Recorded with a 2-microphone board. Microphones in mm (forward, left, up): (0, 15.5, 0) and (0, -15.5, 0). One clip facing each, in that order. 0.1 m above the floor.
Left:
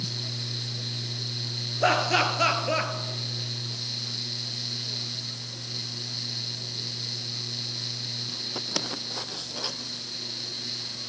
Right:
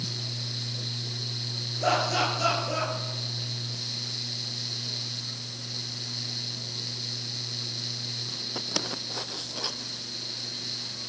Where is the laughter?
40° left (ahead or behind), 1.9 m.